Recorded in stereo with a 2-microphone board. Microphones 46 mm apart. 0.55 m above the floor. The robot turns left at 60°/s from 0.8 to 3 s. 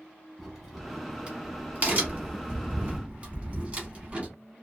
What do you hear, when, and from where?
0.4 s a crack: centre (ahead or behind), 1.0 m; by 4.3 s 25° right (ahead or behind), 1.0 m